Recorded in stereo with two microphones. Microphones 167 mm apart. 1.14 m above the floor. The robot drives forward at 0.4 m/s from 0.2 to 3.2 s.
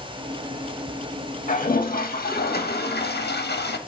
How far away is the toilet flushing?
About 1.6 m.